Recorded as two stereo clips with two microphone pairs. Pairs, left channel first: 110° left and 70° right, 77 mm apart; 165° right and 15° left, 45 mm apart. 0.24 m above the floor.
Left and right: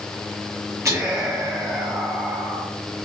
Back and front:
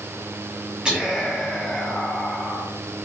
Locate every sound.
0.8 s whispering: 50° right, 1.6 m